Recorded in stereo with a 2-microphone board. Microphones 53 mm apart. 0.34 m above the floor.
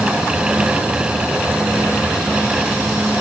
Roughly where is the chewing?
I don't hear chewing.